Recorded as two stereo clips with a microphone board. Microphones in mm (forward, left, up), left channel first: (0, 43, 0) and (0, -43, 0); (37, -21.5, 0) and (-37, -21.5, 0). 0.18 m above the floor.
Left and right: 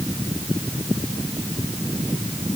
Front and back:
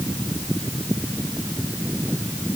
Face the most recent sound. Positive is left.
No sound to turn to.